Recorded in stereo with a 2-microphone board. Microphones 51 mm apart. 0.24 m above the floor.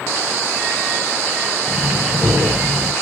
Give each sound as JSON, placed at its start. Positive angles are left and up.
{"t": 1.7, "sound": "breathing", "side_deg": -10, "distance_m": 3.5}